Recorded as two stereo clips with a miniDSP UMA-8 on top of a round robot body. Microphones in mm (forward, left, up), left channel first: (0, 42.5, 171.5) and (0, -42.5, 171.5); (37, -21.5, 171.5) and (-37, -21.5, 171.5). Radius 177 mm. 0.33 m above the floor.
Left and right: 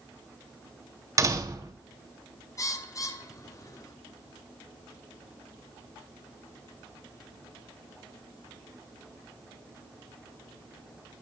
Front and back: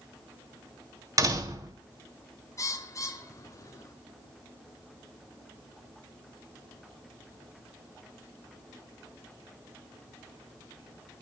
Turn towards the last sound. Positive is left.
turn(degrees=40)